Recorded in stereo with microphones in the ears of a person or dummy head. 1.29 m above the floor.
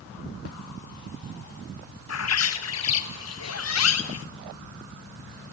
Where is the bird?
80° left, 1.7 m.